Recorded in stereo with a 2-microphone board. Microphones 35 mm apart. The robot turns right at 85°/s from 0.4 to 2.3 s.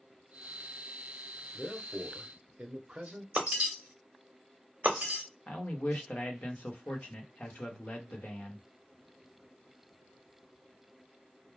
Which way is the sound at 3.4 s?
40° right (ahead or behind).